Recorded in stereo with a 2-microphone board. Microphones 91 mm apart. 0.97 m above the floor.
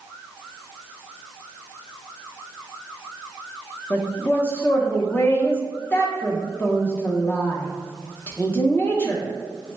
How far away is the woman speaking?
About 0.5 m.